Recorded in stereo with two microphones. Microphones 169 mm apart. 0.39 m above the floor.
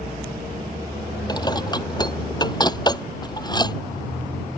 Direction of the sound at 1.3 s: 25° left (ahead or behind).